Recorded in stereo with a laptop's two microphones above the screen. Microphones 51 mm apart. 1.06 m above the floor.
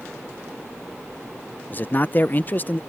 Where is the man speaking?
35° left (ahead or behind).